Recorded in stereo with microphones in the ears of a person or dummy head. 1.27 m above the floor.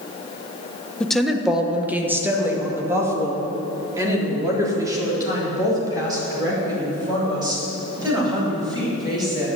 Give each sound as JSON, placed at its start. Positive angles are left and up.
{"t": 1.0, "sound": "a woman speaking", "side_deg": 5, "distance_m": 0.9}